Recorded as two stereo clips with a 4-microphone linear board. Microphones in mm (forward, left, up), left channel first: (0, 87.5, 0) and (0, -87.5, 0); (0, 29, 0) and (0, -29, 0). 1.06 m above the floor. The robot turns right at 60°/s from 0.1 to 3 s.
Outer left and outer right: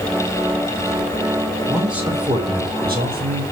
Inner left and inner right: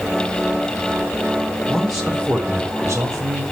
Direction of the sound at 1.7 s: 170° left.